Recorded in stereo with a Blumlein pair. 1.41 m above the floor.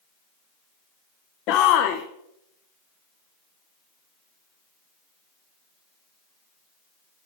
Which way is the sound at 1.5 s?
40° left.